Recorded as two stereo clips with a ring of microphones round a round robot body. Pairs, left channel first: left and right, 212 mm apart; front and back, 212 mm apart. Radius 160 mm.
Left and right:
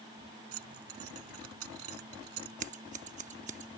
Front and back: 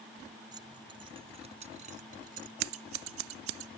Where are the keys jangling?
105° right; by 2.6 s 120° right.